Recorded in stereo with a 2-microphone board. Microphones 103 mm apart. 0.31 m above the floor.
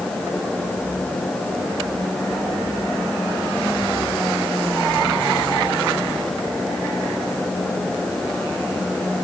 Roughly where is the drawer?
No drawer in this recording.